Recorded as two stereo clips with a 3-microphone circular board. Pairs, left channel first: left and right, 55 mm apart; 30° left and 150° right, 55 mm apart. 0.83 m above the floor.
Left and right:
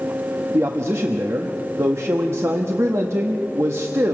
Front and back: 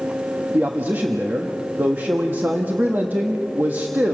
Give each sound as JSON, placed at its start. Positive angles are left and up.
{"t": 0.5, "sound": "a man speaking", "azimuth_deg": -100, "distance_m": 1.2}